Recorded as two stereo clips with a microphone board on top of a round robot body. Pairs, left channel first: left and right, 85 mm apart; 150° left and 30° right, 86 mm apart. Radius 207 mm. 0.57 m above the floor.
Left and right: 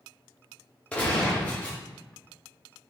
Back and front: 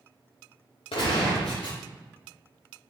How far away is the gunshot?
About 0.6 m.